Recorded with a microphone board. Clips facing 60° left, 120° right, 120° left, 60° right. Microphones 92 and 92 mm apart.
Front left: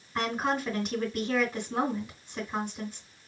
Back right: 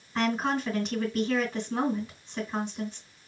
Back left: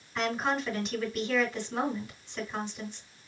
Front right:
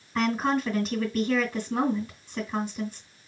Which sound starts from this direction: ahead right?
A woman speaking, at 0.1 s.